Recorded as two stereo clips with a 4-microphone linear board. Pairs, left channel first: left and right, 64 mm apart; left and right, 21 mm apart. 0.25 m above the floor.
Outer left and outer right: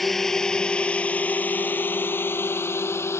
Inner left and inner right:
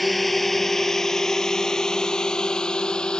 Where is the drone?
5° left (ahead or behind); by 3.2 s 45° left (ahead or behind).